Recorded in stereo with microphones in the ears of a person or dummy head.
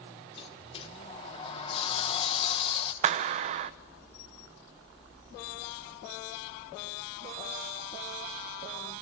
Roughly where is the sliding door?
Left.